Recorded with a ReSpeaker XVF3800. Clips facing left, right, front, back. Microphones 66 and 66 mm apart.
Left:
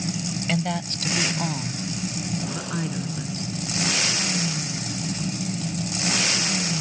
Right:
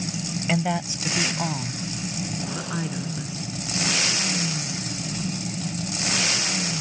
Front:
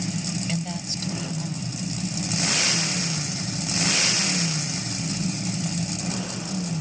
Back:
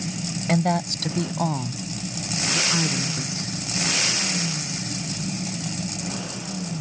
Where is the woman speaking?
165° right; by 3.6 s straight behind.